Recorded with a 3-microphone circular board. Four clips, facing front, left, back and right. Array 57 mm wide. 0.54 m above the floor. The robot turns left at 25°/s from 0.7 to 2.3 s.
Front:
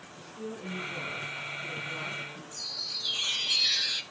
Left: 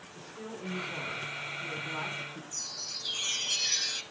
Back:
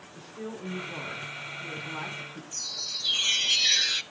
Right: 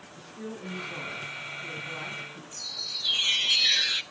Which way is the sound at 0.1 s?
165° left.